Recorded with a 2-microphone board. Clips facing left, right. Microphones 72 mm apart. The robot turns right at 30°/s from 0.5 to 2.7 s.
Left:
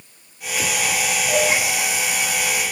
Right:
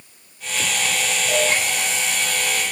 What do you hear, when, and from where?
1.3 s a cowbell: centre (ahead or behind), 6.5 m; by 1.5 s 10° right (ahead or behind), 6.5 m